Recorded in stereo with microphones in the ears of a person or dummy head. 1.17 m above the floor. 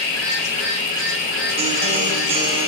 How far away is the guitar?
About 3.5 m.